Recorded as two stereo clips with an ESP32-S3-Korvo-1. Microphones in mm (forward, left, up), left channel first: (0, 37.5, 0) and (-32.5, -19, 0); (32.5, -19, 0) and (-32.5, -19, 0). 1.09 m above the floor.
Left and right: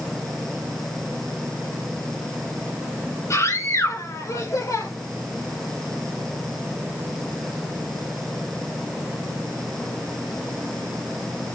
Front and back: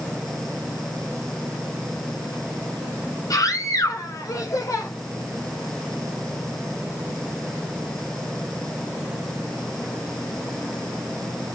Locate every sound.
3.3 s a scream: 20° left, 6.5 m; by 4.9 s 30° left, 6 m